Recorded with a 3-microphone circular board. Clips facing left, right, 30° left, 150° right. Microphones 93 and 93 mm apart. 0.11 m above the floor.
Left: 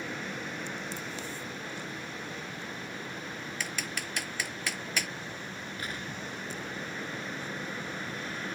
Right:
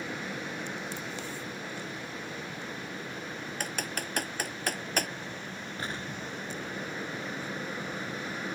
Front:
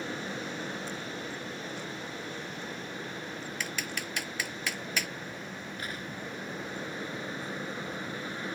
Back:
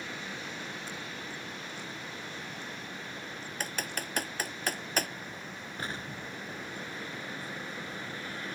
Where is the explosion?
120° right.